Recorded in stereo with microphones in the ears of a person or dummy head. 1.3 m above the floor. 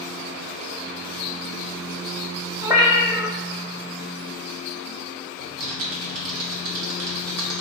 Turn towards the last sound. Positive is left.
turn(degrees=-55)  # may be behind; listen again after turning